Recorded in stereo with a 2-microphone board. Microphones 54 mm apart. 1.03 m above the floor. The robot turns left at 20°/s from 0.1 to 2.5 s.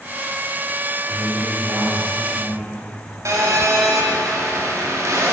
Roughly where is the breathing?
I don't hear breathing.